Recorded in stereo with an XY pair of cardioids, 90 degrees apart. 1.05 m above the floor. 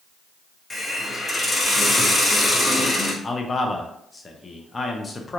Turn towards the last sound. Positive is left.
turn(degrees=30)